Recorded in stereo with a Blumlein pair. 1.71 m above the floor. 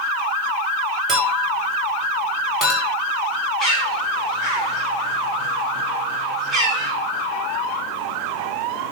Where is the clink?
20° right, 6.5 m.